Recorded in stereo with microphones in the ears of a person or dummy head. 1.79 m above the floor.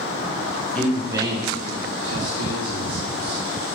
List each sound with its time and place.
0.8 s a man speaking: 10° left (ahead or behind), 0.6 m; by 3.4 s 65° right (ahead or behind), 1.9 m